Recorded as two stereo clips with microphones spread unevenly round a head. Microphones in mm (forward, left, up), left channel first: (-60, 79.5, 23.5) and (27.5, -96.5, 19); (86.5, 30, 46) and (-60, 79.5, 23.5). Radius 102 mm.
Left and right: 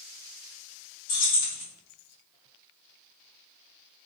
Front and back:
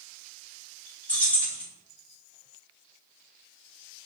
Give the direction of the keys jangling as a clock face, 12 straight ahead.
10 o'clock.